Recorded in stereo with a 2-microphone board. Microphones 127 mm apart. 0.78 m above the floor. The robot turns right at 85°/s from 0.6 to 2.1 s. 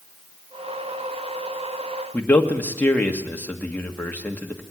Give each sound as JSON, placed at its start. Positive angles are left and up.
{"t": 2.1, "sound": "a man speaking", "side_deg": 15, "distance_m": 1.6}